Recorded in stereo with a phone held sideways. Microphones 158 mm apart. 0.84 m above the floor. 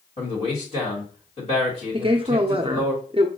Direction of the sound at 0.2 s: 35° left (ahead or behind).